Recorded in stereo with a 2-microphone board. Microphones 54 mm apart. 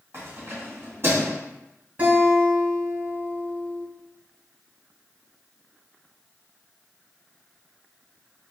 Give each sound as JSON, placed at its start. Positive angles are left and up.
{"t": 0.1, "sound": "keys jangling", "side_deg": -50, "distance_m": 1.9}
{"t": 2.0, "sound": "a guitar", "side_deg": -35, "distance_m": 2.5}